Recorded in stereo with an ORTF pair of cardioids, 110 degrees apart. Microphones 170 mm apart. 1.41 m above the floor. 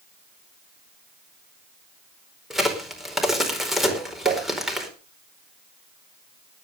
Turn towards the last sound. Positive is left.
turn(degrees=-60)